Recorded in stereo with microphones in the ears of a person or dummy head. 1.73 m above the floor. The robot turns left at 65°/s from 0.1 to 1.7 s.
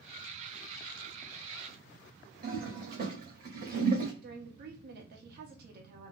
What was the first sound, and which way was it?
A toilet flushing, 45° right (ahead or behind).